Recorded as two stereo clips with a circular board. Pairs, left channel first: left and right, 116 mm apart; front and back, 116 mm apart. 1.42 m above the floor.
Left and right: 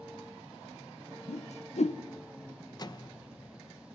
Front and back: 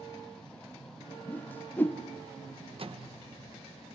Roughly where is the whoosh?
Left.